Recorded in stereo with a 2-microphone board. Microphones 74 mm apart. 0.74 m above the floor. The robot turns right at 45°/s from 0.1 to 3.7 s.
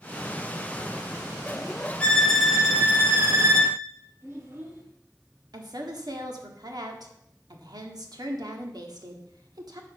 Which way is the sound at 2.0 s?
165° left.